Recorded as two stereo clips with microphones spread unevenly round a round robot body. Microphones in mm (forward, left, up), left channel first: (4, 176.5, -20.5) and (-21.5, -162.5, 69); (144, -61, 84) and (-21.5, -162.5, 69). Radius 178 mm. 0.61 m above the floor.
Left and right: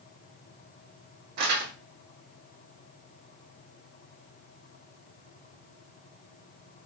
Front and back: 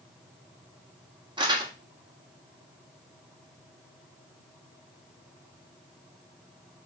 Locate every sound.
1.4 s crumpling: 90° right, 1.4 m